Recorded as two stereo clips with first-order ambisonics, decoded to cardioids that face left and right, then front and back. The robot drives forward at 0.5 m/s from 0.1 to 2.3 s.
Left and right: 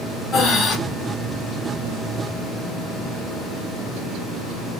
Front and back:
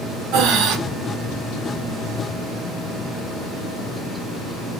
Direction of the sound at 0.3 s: 150° left.